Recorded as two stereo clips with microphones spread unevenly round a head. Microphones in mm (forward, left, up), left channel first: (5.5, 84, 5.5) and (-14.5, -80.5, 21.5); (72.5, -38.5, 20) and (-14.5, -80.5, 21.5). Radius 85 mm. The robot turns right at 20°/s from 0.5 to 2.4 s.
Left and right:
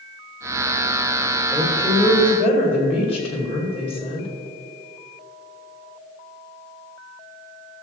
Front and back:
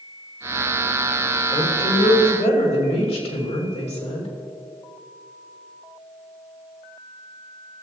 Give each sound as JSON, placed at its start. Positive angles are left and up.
{"t": 1.5, "sound": "a woman speaking", "azimuth_deg": 5, "distance_m": 2.5}